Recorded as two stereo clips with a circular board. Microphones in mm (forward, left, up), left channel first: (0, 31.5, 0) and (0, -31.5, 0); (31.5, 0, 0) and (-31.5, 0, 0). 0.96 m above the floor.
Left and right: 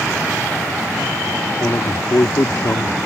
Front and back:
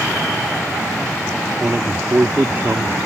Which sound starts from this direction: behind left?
A man speaking, at 1.6 s.